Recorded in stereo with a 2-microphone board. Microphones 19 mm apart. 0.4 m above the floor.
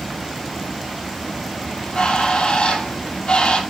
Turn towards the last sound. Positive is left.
turn(degrees=55)  # may be behind; listen again after turning